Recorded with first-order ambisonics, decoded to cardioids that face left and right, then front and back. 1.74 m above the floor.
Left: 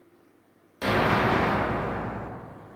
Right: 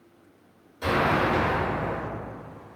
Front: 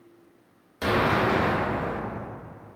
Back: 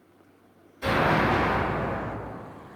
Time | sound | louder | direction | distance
0.8 | an explosion | even, even | 30° left | 0.7 m